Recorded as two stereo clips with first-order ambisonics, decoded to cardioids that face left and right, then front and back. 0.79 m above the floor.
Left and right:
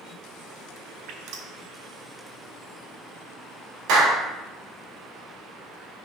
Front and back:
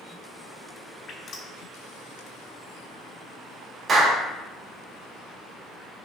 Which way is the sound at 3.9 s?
110° right.